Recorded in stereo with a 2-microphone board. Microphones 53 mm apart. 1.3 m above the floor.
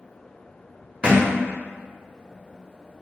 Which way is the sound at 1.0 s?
20° right (ahead or behind).